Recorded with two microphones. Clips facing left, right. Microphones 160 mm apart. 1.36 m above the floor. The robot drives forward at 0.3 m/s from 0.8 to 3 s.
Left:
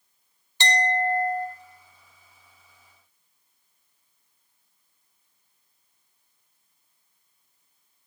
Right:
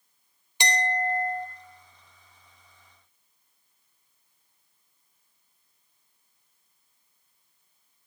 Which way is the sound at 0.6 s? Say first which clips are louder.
Left 3 dB; 15° right (ahead or behind).